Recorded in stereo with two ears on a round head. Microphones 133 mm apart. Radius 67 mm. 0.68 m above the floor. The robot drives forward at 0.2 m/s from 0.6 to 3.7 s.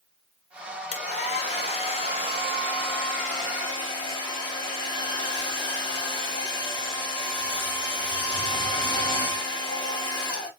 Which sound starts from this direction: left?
A hair dryer, at 0.9 s.